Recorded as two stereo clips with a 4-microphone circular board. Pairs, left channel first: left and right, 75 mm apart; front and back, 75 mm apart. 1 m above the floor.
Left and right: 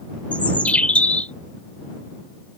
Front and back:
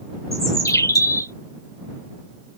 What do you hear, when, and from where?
0.3 s a bird: 25° left